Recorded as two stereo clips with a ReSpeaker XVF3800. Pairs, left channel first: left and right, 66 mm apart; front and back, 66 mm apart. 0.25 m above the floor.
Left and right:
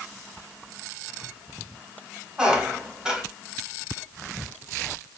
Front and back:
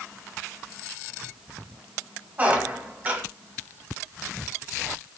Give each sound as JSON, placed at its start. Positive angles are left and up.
{"t": 2.4, "sound": "a squeak", "azimuth_deg": -150, "distance_m": 0.7}